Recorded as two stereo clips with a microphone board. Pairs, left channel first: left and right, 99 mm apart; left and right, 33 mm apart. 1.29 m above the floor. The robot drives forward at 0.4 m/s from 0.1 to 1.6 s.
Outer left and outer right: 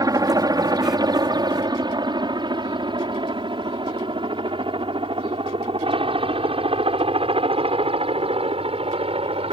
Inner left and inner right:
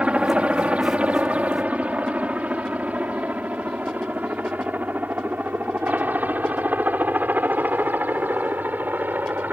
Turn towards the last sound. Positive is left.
turn(degrees=-75)  # may be behind; listen again after turning